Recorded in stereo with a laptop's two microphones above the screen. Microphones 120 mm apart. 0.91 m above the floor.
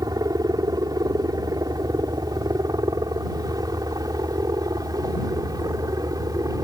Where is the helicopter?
30° right (ahead or behind).